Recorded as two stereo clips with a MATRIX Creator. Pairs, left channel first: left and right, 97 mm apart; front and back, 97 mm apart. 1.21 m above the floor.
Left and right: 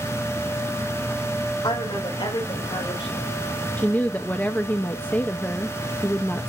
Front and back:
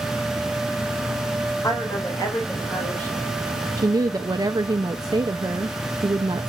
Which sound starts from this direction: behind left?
A woman speaking, at 3.8 s.